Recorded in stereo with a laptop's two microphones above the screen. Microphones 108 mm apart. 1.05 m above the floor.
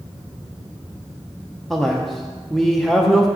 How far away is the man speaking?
About 0.7 m.